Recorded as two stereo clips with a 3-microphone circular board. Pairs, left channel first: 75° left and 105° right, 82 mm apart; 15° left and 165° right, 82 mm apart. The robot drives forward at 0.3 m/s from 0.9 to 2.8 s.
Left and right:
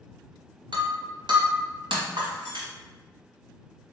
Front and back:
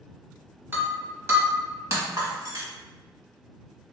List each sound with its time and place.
0.7 s breaking glass: 105° right, 1.3 m; by 2.7 s 125° right, 1.5 m